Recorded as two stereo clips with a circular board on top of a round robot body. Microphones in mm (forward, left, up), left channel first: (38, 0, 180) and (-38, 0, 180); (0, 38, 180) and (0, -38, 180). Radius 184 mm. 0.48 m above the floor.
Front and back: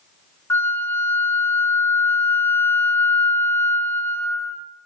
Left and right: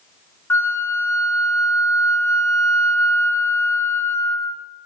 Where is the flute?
40° left, 0.5 m.